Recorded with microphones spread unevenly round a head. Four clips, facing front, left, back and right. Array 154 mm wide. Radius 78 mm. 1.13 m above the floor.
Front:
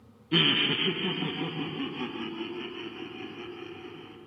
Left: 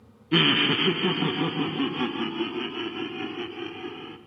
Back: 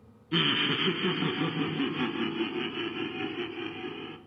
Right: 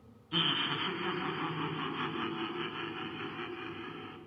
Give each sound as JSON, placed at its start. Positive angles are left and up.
{"t": 0.3, "sound": "laughter", "azimuth_deg": 80, "distance_m": 1.1}